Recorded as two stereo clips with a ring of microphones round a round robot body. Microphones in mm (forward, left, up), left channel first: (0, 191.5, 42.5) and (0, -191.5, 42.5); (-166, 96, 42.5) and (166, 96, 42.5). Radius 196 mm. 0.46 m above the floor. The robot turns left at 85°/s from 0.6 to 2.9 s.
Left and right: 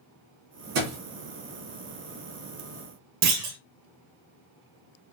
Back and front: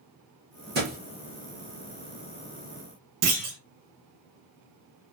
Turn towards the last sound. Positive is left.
turn(degrees=-55)